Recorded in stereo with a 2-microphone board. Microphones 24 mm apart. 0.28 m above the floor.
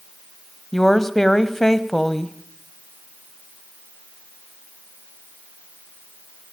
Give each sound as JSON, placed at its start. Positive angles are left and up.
{"t": 0.7, "sound": "a woman speaking", "side_deg": 20, "distance_m": 1.3}